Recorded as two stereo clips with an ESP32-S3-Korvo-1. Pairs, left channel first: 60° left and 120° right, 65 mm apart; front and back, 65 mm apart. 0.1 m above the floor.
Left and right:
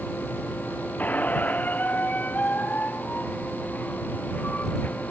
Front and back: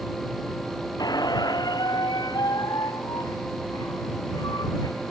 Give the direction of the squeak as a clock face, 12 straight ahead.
12 o'clock.